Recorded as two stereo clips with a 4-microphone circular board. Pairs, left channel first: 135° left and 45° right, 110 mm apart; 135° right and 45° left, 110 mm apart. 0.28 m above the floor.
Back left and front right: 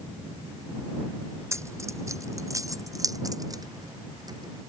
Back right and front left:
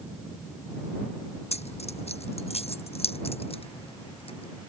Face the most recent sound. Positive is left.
turn(degrees=-100)